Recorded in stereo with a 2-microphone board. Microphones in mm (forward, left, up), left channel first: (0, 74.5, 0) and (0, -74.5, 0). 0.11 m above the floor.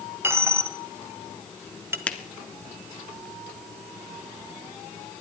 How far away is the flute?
I don't hear a flute.